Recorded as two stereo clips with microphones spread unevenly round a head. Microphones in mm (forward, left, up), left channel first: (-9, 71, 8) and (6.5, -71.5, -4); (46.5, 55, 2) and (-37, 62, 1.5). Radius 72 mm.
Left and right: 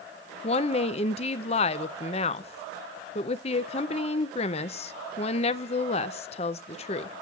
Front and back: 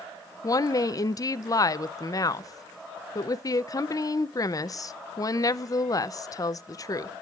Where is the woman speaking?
45° left, 0.5 m.